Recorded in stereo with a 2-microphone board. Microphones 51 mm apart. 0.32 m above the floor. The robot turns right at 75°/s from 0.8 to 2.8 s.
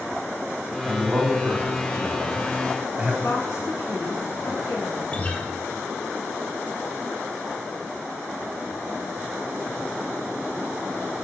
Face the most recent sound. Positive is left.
turn(degrees=25)  # may be behind; listen again after turning